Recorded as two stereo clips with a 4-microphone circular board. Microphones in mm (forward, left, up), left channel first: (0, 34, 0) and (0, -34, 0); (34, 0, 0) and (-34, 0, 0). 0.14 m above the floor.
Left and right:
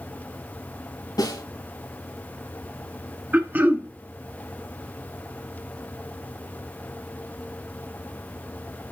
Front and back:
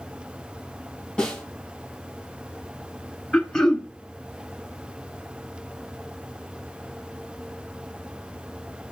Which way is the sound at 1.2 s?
80° left.